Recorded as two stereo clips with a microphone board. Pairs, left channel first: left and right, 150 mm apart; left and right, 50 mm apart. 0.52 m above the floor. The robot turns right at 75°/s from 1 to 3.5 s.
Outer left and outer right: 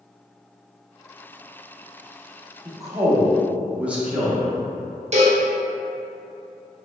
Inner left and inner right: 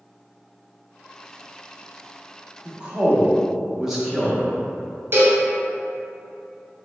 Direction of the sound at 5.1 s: 50° right (ahead or behind).